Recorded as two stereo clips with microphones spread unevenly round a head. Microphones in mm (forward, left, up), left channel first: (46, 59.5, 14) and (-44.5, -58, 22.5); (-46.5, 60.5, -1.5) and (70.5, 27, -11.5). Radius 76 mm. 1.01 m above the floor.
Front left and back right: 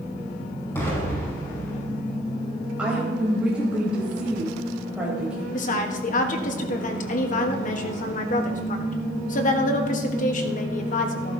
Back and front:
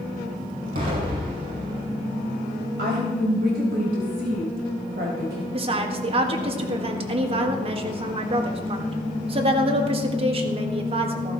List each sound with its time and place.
0.8 s an explosion: 20° right, 5.5 m
2.8 s a woman speaking: 45° right, 4 m
5.5 s a woman speaking: 20° left, 1.6 m